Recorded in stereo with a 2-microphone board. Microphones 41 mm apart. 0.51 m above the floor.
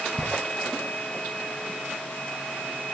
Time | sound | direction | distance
0.2 | ticking | 65° right (ahead or behind) | 4.5 m